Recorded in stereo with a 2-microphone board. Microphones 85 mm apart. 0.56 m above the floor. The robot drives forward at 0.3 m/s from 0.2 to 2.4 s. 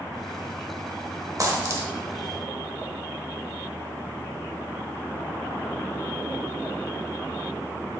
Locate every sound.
1.4 s a dropped coin: 40° right (ahead or behind), 0.5 m; by 1.9 s 35° right (ahead or behind), 0.6 m